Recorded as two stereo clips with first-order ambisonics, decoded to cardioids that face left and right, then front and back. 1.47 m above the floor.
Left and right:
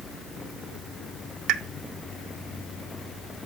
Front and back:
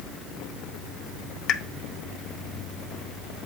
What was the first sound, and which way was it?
A pop, 50° right.